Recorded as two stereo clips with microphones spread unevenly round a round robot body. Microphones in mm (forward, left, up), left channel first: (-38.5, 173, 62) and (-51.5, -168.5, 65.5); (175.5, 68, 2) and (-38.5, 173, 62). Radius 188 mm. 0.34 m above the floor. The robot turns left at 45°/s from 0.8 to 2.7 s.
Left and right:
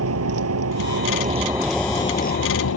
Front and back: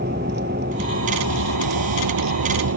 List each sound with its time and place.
0.0 s a vehicle: 140° right; by 2.8 s 135° left